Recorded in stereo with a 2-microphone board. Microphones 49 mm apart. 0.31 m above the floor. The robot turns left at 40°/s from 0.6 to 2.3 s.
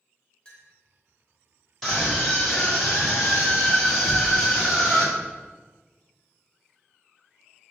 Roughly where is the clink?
Centre.